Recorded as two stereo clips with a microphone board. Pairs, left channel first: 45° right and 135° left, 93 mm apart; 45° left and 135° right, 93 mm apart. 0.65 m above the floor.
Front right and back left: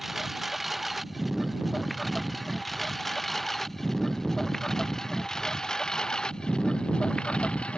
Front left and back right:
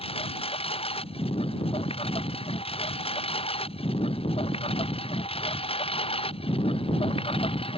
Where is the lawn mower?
45° left; by 7.8 s 35° left.